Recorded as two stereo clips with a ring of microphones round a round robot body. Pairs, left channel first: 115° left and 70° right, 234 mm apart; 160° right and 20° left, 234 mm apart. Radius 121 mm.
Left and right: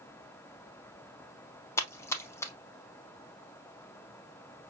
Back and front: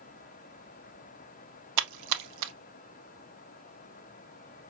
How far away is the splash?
About 0.6 m.